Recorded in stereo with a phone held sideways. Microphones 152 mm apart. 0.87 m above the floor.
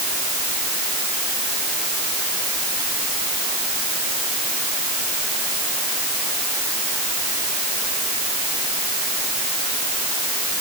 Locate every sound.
Only background noise.